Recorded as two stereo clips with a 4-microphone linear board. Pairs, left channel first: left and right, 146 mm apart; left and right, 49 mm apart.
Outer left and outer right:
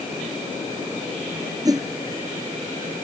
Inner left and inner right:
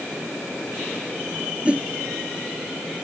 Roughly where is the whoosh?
Right.